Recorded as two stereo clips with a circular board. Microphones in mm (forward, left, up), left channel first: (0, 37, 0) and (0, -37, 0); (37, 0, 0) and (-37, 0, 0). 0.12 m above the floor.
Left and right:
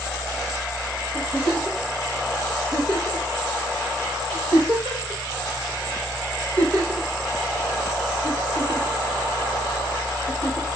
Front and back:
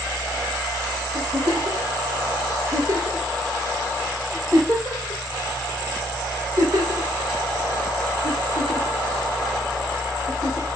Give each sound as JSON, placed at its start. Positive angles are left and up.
{"t": 1.1, "sound": "a giggle", "azimuth_deg": -125, "distance_m": 4.5}